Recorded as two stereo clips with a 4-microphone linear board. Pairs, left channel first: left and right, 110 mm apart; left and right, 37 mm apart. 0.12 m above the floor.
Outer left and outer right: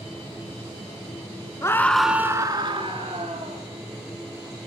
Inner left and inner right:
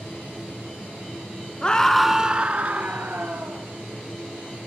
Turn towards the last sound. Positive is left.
turn(degrees=-65)  # may be behind; listen again after turning